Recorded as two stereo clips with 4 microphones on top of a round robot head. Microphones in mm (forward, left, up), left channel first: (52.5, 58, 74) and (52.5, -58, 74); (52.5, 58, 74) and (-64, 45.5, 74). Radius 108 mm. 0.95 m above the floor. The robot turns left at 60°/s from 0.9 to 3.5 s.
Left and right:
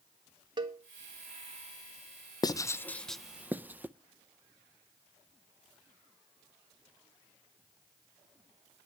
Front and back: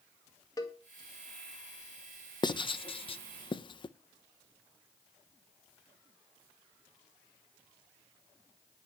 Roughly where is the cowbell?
Ahead right.